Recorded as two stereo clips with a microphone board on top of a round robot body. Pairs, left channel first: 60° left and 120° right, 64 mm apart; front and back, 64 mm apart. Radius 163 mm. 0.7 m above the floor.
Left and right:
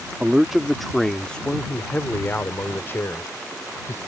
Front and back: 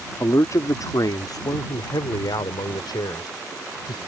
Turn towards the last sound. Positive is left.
turn(degrees=10)